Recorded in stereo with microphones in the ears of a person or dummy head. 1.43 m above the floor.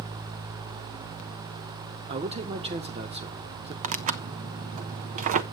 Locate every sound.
2.1 s a man speaking: 30° right (ahead or behind), 1.6 m
3.8 s tearing paper: 40° right (ahead or behind), 0.9 m